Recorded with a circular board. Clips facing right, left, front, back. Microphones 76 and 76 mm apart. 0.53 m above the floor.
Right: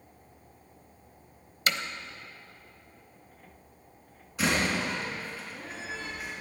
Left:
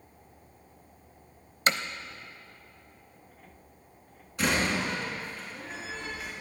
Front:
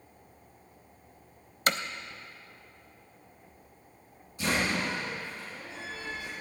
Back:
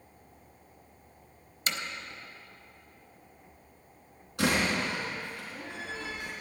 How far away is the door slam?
About 4.5 m.